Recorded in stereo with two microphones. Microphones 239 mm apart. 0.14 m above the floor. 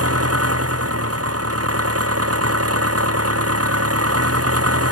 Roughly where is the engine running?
Right.